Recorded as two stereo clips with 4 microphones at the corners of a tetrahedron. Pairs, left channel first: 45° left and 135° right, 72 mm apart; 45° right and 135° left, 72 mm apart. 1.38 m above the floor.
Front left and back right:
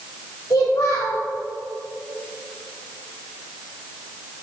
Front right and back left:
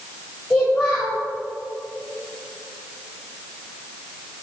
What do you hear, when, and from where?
0.5 s a child speaking: 15° left, 1.7 m